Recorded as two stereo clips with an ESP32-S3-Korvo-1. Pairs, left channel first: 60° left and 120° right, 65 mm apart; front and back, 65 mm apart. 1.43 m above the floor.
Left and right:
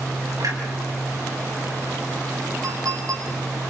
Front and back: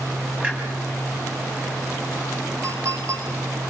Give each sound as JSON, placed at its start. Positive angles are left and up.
{"t": 0.4, "sound": "a clunk", "azimuth_deg": -110, "distance_m": 6.5}
{"t": 2.6, "sound": "a clink", "azimuth_deg": -140, "distance_m": 9.0}